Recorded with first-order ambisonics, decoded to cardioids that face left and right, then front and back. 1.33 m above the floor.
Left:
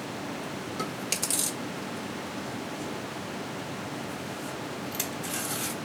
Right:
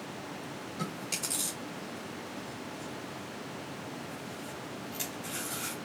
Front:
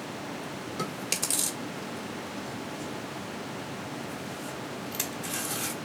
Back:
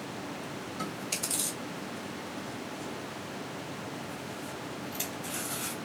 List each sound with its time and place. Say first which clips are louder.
0.8 s chewing: left 4 dB, front 4 dB; 40° left, 1.5 m